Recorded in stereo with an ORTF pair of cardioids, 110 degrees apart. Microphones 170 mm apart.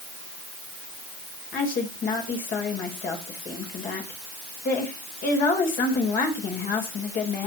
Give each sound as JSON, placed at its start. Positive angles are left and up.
{"t": 1.5, "sound": "a woman speaking", "azimuth_deg": 55, "distance_m": 4.5}